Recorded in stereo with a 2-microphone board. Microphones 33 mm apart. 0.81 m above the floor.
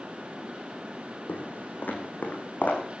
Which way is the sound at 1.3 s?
65° left (ahead or behind).